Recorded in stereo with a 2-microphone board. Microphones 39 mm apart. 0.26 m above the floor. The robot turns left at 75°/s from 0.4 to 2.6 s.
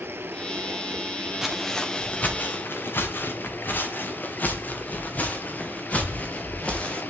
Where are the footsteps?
10° right (ahead or behind), 3 m; by 7.0 s 30° left (ahead or behind), 4 m.